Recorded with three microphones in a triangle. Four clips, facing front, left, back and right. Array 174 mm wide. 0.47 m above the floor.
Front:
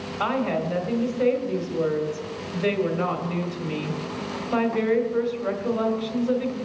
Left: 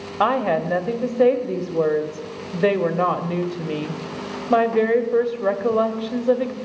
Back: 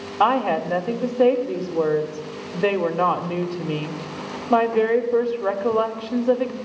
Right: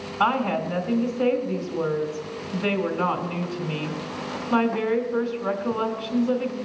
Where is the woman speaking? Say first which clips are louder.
Left 3 dB, back 6 dB; 130° left, 1.6 m.